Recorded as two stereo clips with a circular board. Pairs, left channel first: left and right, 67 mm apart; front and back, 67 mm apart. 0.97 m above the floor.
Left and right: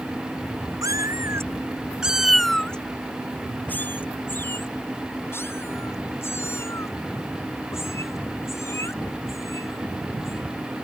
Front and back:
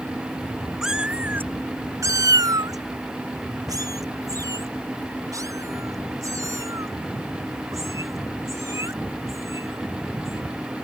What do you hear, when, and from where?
0.8 s a cat meowing: 95° right; by 10.4 s 135° left